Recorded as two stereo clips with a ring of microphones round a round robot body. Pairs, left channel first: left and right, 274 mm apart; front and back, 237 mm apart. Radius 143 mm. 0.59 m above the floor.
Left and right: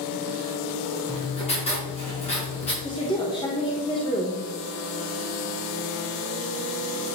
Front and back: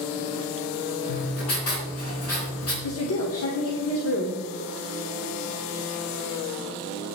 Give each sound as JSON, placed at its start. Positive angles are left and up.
{"t": 1.1, "sound": "writing", "azimuth_deg": 20, "distance_m": 4.5}
{"t": 2.8, "sound": "a woman speaking", "azimuth_deg": 15, "distance_m": 1.5}